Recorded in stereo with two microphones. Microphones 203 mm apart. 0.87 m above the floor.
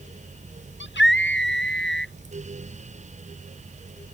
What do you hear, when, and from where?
0.8 s a scream: 65° left (ahead or behind)